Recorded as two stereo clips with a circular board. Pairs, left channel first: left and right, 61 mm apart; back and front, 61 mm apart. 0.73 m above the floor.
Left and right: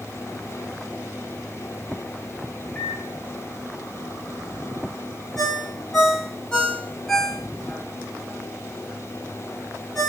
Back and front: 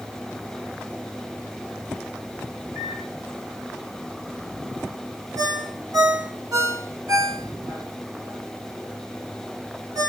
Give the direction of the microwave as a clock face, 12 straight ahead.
11 o'clock.